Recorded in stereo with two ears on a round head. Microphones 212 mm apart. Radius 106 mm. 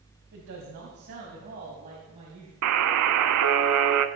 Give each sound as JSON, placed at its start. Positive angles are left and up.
{"t": 0.3, "sound": "a woman speaking", "side_deg": -60, "distance_m": 3.0}
{"t": 2.6, "sound": "a buzzer", "side_deg": -80, "distance_m": 0.8}